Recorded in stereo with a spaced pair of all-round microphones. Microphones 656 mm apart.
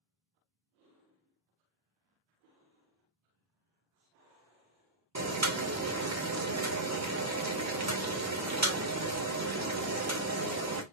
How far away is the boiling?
About 0.5 m.